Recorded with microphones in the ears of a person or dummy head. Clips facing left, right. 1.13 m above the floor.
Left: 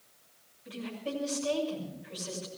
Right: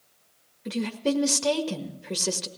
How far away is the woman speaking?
About 1.7 m.